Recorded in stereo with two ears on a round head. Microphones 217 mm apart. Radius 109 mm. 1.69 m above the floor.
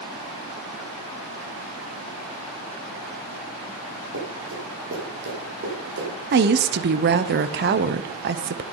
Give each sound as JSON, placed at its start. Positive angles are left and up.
{"t": 4.1, "sound": "running footsteps", "side_deg": -55, "distance_m": 5.0}
{"t": 6.3, "sound": "a woman speaking", "side_deg": -45, "distance_m": 0.8}